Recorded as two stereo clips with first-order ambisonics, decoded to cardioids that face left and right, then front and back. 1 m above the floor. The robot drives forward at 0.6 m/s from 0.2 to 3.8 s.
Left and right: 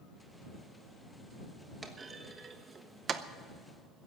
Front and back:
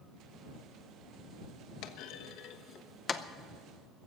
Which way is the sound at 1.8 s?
15° right.